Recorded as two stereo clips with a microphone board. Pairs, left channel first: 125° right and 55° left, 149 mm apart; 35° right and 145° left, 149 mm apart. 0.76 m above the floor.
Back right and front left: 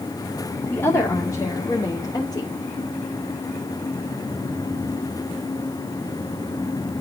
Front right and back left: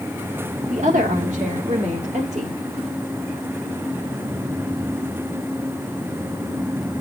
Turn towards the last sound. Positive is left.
turn(degrees=180)